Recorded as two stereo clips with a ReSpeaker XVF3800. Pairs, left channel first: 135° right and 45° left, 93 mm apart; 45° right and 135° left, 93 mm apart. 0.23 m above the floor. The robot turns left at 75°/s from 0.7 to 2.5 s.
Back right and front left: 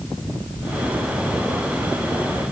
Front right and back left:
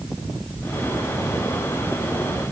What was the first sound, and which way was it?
Only background noise.